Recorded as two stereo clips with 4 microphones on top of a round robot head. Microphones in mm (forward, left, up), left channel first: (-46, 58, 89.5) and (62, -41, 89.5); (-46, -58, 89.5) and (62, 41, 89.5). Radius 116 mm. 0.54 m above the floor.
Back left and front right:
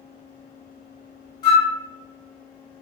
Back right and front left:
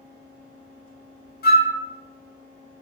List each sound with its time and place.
1.4 s a flute: 160° right, 0.9 m